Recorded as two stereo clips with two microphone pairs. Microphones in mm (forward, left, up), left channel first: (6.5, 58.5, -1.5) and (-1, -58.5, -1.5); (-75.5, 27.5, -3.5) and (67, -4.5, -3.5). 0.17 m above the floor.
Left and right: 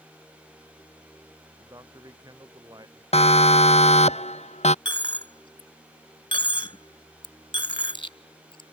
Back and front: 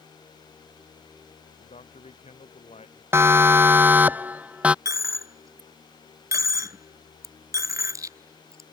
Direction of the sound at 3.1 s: 60° left.